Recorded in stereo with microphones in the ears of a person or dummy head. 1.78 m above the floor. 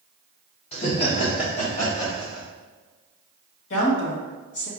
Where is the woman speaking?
75° left (ahead or behind), 1.3 m.